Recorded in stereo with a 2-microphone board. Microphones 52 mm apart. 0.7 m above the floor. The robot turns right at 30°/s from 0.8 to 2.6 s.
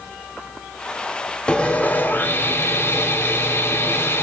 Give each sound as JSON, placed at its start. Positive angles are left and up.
{"t": 1.5, "sound": "sawing", "azimuth_deg": 20, "distance_m": 1.2}